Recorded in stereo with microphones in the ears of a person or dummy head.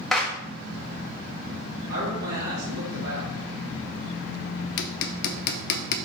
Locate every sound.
0.1 s a clap: centre (ahead or behind), 1.4 m
1.9 s a man speaking: 60° right (ahead or behind), 1.9 m
4.8 s hammering: 55° left (ahead or behind), 0.6 m